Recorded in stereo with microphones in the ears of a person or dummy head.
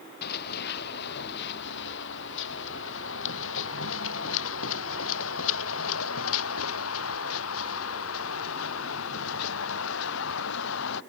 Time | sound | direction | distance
0.2 | running footsteps | 55° left (ahead or behind) | ?